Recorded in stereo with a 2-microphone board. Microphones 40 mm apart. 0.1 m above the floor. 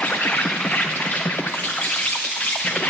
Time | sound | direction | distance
0.0 | an insect | 40° left (ahead or behind) | 0.8 m